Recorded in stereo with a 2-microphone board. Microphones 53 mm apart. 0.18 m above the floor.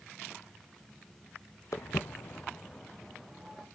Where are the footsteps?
75° left (ahead or behind), 1.0 m; by 3.7 s 5° right (ahead or behind), 2.5 m.